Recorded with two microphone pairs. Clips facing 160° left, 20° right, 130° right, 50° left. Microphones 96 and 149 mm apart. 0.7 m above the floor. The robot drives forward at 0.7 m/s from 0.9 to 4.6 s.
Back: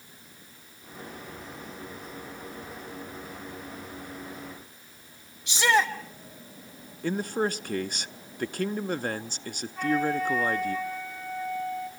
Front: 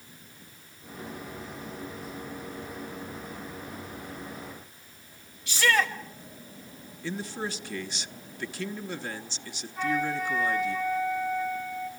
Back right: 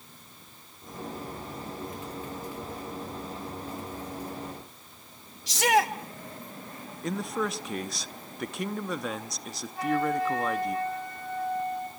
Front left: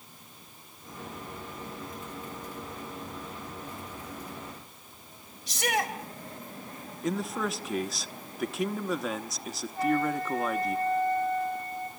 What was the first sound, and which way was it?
A shout, 130° right.